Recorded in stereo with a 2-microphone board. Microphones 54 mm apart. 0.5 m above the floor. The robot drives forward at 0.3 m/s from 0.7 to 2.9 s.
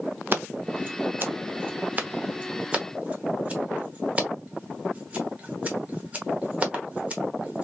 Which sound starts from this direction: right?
Scissors, at 0.3 s.